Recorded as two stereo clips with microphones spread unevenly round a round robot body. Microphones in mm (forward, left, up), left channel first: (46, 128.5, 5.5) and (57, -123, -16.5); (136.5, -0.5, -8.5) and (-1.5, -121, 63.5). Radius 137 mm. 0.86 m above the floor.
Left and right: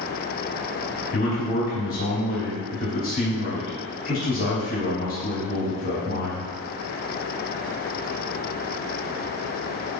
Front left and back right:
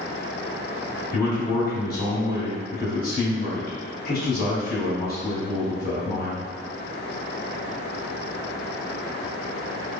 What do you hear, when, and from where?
1.1 s a man speaking: 40° left, 1.9 m